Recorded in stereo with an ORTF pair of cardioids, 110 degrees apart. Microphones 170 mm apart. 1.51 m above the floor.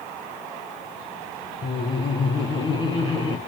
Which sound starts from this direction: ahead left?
Laughter, at 1.6 s.